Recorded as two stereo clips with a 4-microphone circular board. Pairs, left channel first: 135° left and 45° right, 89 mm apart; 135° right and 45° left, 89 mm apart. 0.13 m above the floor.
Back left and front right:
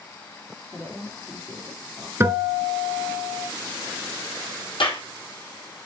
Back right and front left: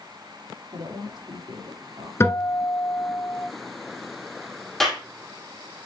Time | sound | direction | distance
0.7 | a woman speaking | 20° left | 3.5 m
2.2 | a guitar | 90° right | 1.2 m
4.8 | a clap | 140° left | 3 m